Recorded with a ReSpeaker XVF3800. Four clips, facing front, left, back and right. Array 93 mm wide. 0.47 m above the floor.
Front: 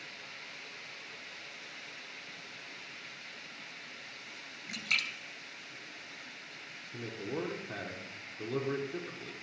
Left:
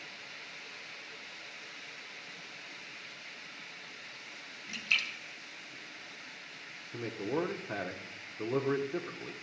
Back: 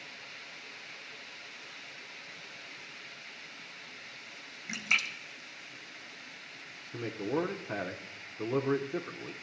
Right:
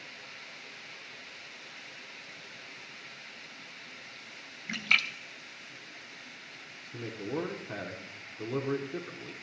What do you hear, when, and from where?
4.7 s a splash: 110° right, 0.6 m
6.9 s a man speaking: 150° left, 0.8 m